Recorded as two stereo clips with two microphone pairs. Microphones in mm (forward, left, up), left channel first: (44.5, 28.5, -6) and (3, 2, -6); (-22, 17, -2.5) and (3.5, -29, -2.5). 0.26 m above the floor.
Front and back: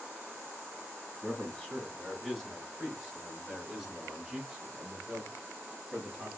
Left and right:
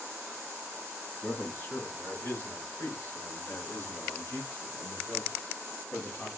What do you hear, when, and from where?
1.2 s a man speaking: 105° left, 1.7 m; by 6.3 s 130° left, 4 m